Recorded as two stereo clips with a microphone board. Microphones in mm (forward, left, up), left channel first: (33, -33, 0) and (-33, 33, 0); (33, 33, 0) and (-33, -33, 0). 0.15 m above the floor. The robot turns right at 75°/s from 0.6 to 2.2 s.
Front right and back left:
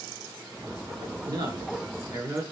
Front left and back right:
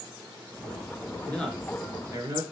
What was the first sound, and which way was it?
A man speaking, 110° left.